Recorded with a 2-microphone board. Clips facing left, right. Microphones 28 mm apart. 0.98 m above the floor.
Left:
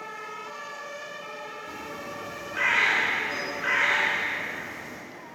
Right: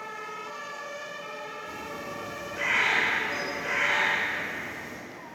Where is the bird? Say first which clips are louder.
Even; 65° left (ahead or behind), 4.5 m.